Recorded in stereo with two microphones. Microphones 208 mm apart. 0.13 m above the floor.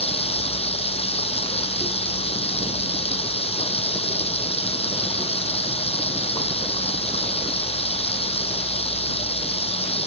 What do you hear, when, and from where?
0.0 s running water: 30° left (ahead or behind)